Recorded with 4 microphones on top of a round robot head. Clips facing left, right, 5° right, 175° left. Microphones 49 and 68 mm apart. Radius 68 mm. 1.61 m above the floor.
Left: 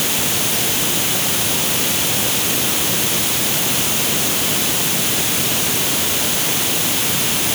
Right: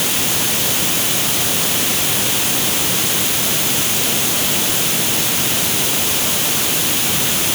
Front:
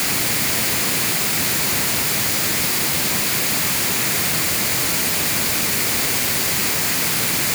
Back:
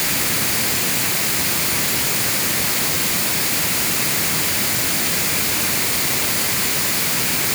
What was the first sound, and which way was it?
Only background noise.